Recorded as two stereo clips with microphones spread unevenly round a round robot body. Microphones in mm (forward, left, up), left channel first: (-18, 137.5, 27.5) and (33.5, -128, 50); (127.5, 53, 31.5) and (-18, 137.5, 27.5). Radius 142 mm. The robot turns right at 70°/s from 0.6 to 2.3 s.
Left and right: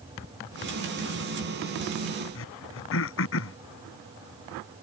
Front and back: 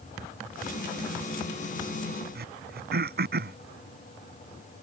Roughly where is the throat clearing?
Behind left.